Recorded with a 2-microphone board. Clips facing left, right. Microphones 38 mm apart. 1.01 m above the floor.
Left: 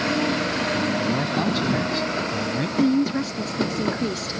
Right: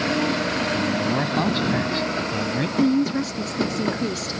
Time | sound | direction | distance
0.7 | a man speaking | 20° right (ahead or behind) | ?
2.8 | a woman speaking | 5° left (ahead or behind) | ?